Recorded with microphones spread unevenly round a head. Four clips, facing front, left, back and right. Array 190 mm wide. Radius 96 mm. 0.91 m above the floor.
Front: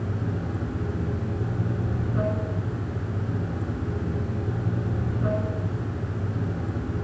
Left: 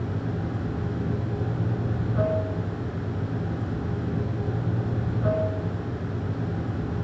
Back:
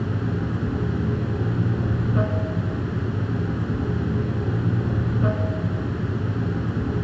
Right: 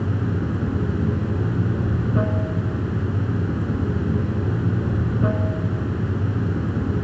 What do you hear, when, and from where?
0.0 s running water: 115° right, 3 m